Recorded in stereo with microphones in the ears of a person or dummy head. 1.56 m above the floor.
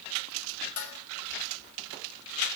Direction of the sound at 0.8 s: 75° left (ahead or behind).